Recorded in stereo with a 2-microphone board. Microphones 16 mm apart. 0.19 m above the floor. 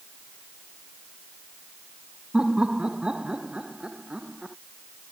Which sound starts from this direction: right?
Laughter, at 2.3 s.